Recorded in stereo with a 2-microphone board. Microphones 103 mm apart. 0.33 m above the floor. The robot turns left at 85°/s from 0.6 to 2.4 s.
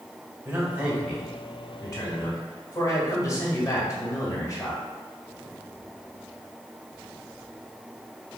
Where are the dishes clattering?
No dishes clattering in this recording.